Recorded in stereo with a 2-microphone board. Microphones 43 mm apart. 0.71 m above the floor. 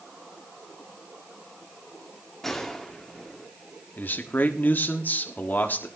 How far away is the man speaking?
About 1.4 m.